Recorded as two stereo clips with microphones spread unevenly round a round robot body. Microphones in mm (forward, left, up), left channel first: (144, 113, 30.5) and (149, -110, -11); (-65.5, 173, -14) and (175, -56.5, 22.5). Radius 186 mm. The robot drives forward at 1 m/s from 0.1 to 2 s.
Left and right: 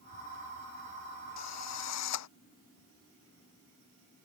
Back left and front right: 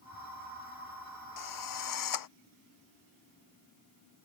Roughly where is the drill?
Left.